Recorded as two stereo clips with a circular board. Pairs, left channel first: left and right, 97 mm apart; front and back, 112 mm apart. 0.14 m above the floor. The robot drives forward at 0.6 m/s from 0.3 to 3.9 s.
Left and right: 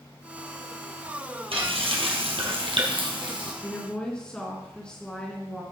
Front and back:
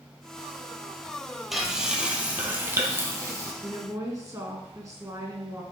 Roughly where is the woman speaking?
Behind.